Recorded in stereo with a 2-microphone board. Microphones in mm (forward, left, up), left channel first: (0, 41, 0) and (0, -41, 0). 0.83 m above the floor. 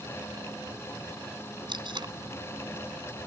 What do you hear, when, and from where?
1.7 s tape being pulled: 60° right (ahead or behind)